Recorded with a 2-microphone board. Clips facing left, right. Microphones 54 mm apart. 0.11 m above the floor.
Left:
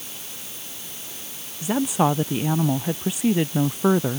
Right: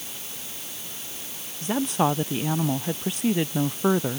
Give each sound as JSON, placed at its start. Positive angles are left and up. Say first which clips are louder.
{"t": 1.6, "sound": "a woman speaking", "louder": "left 2 dB", "side_deg": 5}